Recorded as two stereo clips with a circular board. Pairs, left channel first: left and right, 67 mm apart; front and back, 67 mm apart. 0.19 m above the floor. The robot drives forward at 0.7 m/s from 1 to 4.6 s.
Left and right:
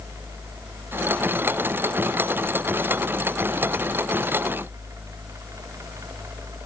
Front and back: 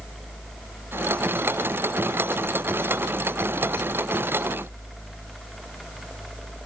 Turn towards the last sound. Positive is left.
No sound to turn to.